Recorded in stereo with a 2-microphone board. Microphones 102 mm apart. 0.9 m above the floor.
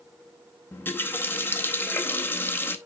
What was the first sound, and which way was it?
A running tap, 20° left (ahead or behind).